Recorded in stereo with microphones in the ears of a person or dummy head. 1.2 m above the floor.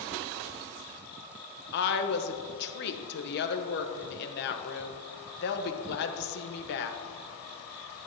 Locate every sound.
1.7 s a woman speaking: 50° left (ahead or behind), 1.2 m